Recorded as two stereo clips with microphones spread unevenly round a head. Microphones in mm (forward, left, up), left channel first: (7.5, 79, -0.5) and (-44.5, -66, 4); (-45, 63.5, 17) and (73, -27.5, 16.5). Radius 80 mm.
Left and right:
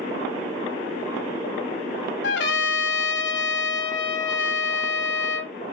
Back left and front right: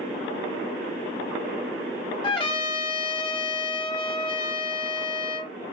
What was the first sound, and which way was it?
A trumpet, 85° left.